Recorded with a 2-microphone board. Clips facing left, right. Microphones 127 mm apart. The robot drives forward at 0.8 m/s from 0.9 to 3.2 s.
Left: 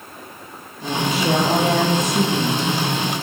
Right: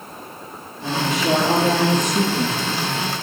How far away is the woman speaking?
About 5.5 m.